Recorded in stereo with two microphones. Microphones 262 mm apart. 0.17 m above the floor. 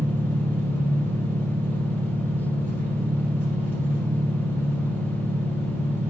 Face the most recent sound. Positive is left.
turn(degrees=-10)  # may be behind; listen again after turning